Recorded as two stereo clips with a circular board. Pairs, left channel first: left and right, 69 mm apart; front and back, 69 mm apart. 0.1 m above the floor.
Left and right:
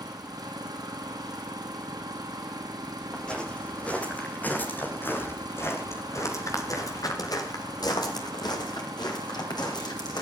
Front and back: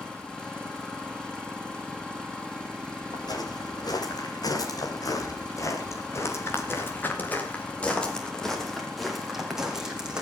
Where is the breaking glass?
I don't hear breaking glass.